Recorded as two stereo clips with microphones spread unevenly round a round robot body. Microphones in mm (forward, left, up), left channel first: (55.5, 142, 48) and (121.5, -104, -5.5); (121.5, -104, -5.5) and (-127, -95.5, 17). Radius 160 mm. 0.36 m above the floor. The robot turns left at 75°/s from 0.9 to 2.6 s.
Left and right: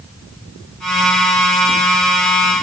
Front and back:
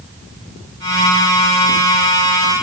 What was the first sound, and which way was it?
Only background noise.